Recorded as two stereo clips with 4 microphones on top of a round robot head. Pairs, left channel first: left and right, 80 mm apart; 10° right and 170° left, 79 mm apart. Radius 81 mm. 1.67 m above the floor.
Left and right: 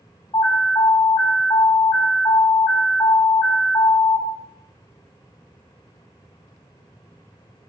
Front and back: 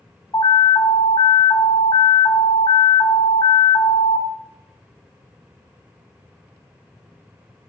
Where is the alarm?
25° left, 5.5 m.